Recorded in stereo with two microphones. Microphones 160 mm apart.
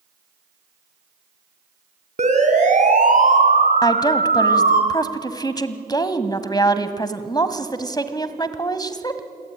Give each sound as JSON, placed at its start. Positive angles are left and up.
{"t": 2.2, "sound": "a siren", "side_deg": -45, "distance_m": 3.5}
{"t": 3.8, "sound": "a woman speaking", "side_deg": 25, "distance_m": 1.7}